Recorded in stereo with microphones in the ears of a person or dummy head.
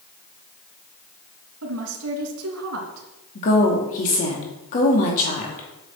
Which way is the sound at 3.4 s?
45° left (ahead or behind).